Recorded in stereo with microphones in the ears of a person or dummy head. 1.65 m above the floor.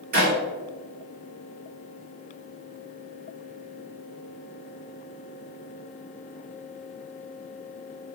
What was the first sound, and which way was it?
A clap, 45° right (ahead or behind).